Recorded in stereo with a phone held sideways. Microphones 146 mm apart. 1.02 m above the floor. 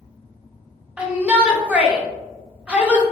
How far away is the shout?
About 0.5 m.